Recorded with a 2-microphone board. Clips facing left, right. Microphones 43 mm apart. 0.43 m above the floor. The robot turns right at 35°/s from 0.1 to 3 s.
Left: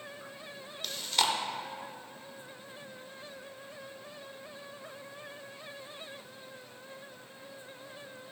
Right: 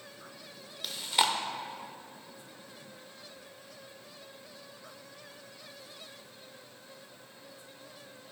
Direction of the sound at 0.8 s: 5° right (ahead or behind).